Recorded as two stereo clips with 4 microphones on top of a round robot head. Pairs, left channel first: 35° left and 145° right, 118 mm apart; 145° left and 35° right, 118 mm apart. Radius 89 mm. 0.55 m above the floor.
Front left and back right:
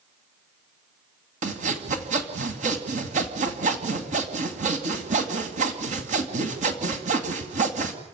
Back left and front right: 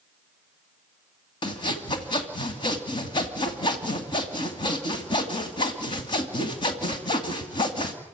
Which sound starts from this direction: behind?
Sawing, at 1.4 s.